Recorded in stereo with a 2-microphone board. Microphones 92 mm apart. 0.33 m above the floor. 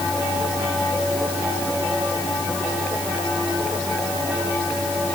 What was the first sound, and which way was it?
Only background noise.